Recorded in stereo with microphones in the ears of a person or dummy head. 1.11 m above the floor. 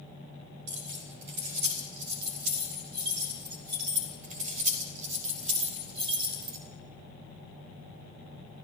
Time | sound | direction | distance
0.7 | keys jangling | 65° right (ahead or behind) | 4.5 m